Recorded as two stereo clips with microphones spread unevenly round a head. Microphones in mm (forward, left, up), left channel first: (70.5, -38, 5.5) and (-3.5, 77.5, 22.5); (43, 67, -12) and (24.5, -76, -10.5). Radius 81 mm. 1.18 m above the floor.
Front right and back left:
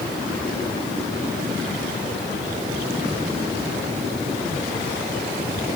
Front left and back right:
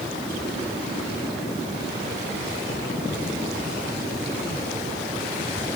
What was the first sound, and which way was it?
Only background noise.